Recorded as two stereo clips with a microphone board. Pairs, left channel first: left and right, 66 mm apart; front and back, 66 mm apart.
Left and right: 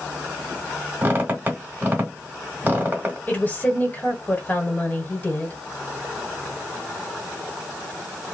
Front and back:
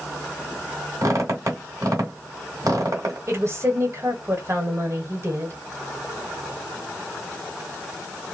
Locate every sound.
1.0 s a squeak: 150° right, 1.3 m
3.3 s a woman speaking: 150° left, 1.3 m